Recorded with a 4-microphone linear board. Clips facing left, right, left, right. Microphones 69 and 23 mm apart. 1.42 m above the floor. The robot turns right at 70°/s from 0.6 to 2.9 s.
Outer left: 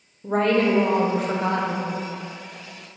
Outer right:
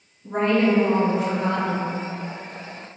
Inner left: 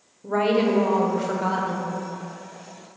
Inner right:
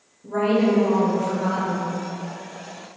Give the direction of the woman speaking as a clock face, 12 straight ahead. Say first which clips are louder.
Even, inner right 1 dB; 9 o'clock.